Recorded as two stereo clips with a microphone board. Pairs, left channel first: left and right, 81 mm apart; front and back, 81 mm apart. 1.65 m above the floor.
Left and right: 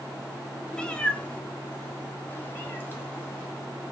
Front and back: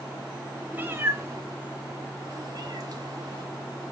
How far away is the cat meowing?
About 1.2 m.